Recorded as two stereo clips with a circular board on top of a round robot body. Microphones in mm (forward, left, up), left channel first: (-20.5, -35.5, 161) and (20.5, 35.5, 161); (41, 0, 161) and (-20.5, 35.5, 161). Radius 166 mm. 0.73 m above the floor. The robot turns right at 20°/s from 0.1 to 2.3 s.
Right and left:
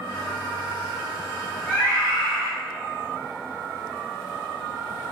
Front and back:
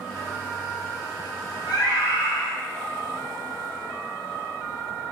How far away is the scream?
About 2 m.